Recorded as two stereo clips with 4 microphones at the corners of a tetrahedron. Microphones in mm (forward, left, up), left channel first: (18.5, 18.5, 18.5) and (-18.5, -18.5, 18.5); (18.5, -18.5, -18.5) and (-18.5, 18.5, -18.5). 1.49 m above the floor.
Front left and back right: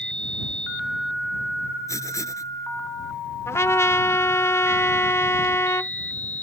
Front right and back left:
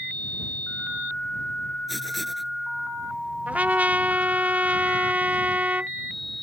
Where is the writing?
45° left.